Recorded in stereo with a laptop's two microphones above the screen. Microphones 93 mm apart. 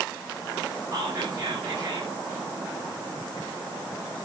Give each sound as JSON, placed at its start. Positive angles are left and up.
{"t": 0.9, "sound": "whispering", "side_deg": -35, "distance_m": 6.0}